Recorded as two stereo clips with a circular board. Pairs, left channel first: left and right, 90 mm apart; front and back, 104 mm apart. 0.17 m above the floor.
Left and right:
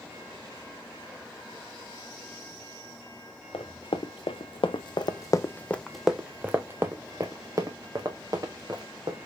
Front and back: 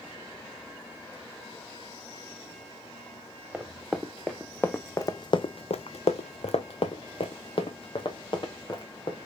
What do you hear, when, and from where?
3.5 s running footsteps: 95° left, 1.1 m; by 9.2 s 45° right, 2.0 m